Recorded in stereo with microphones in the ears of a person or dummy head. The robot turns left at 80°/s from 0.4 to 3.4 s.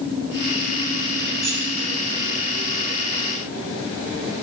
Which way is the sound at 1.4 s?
5° right (ahead or behind).